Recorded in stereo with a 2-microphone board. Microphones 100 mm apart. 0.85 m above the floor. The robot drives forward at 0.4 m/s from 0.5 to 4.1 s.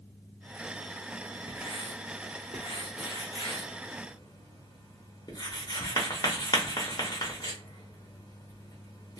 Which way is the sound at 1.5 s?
50° left (ahead or behind).